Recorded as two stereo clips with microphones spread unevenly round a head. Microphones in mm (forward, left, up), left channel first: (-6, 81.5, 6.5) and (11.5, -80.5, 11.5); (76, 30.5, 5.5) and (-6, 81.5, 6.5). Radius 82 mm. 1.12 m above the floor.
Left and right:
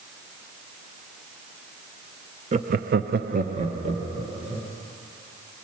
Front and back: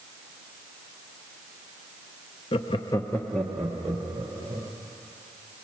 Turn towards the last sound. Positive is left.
turn(degrees=-145)